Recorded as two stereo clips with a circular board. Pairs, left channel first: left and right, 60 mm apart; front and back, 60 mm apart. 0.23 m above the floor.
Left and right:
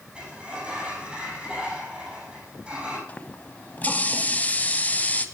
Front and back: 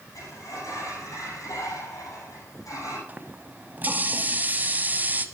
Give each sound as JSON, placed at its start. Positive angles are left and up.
{"t": 0.1, "sound": "a sliding door", "azimuth_deg": -20, "distance_m": 6.5}
{"t": 3.1, "sound": "a running tap", "azimuth_deg": 135, "distance_m": 0.9}